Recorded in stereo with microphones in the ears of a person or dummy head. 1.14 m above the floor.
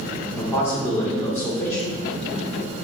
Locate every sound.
0.4 s a man speaking: 15° left (ahead or behind), 3.5 m